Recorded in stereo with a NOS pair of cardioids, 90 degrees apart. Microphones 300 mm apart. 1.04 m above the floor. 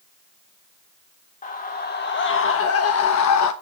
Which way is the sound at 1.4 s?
25° left.